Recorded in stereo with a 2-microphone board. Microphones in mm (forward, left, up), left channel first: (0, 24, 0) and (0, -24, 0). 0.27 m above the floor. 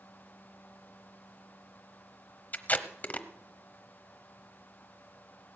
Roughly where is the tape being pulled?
Left.